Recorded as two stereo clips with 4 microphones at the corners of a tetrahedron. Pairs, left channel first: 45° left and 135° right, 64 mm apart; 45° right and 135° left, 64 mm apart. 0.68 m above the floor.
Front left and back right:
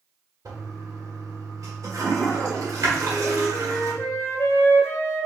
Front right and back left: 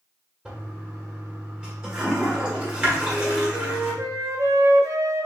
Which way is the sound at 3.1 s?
95° left.